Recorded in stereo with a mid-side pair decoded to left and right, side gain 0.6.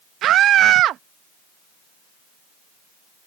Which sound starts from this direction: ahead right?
A scream, at 0.2 s.